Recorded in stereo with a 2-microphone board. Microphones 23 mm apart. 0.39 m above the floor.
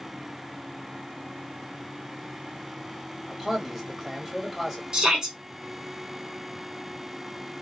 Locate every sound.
3.3 s a man speaking: 5° right (ahead or behind), 2 m
4.9 s a shout: 30° right (ahead or behind), 1.6 m